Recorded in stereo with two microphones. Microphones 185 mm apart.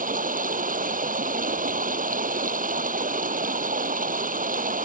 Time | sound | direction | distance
0.0 | running water | 45° right (ahead or behind) | ?